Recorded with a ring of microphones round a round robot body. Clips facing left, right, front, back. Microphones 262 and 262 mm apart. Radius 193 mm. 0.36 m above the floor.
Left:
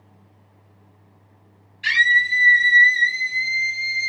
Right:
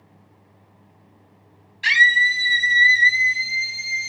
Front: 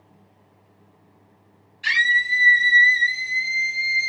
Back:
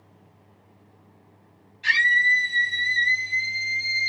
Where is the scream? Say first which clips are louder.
Right 2 dB, even; 80° right, 2 m; by 4.1 s 125° right, 1.2 m.